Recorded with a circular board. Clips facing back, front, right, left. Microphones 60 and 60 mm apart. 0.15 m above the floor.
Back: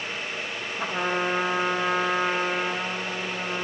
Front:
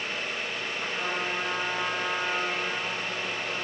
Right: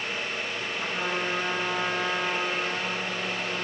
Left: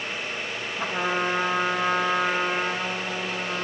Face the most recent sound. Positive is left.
turn(degrees=140)